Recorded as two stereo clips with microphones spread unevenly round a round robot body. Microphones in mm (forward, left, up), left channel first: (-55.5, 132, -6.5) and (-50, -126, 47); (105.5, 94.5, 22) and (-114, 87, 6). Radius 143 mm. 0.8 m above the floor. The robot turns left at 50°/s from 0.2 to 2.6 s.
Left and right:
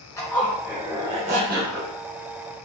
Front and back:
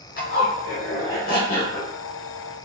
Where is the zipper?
30° left, 0.6 m; by 1.9 s 55° right, 0.6 m.